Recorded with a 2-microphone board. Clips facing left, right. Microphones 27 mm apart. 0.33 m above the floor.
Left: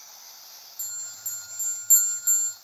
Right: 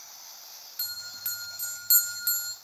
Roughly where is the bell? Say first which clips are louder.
Right 3 dB; right.